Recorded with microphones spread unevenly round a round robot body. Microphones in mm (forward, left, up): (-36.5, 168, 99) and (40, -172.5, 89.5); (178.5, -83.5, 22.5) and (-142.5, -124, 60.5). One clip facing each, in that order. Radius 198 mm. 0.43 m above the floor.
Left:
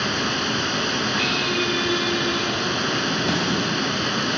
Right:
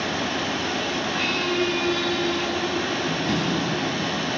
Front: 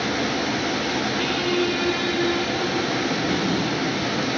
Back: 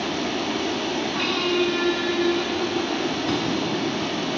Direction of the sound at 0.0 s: 70° left.